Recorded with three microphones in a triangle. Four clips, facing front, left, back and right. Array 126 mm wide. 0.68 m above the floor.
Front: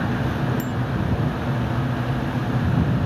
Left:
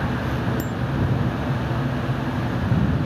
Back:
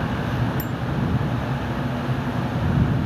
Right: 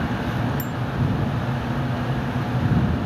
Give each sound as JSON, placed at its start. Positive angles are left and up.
{"t": 0.6, "sound": "a bicycle bell", "azimuth_deg": 85}